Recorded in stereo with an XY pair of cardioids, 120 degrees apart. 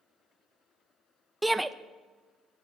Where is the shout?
10° right, 0.9 m.